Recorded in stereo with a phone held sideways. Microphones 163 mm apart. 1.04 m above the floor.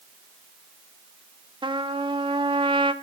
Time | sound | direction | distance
1.6 | a trumpet | 30° right (ahead or behind) | 1.1 m